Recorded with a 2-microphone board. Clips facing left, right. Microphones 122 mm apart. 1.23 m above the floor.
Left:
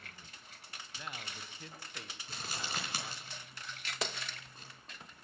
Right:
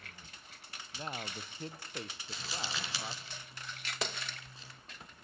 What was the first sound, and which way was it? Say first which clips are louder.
A man speaking: right 5 dB; 35° right (ahead or behind).